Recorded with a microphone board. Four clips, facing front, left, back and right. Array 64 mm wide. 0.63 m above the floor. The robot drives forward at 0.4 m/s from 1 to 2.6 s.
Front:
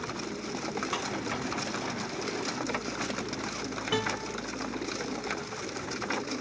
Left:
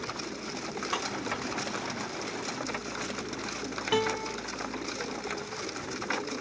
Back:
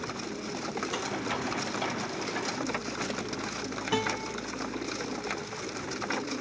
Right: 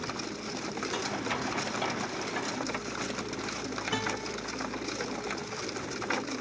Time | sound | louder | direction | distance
0.9 | breaking glass | left 4 dB, front 1 dB | 60° left | 3.5 m
3.9 | a guitar | left 7 dB, back 1 dB | 100° left | 2 m